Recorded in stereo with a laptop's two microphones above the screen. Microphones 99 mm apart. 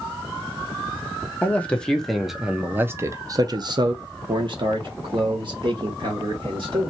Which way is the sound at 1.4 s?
15° left (ahead or behind).